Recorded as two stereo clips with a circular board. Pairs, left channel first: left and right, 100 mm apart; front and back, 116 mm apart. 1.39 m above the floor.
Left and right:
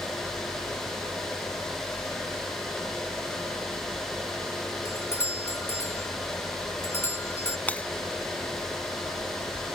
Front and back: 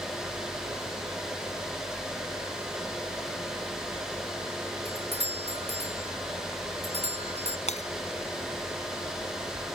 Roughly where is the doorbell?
Behind left.